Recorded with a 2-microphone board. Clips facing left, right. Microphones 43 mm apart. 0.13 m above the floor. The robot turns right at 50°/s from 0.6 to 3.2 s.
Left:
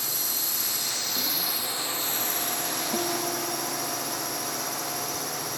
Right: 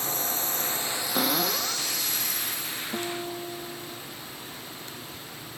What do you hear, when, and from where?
0.0 s a drone: 40° right; by 5.6 s 90° left
1.1 s a cupboard door: 125° right; by 1.9 s 90° right
2.9 s a guitar: 15° left (ahead or behind); by 4.0 s 5° left (ahead or behind)